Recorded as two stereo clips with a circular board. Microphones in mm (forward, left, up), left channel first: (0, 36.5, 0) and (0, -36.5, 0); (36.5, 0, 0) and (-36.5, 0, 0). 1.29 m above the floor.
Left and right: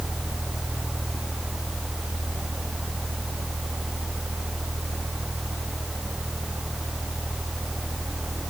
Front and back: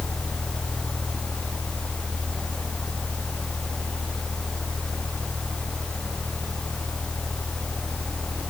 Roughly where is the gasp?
I don't hear a gasp.